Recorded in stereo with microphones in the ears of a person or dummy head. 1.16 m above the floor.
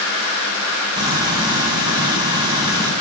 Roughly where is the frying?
Right.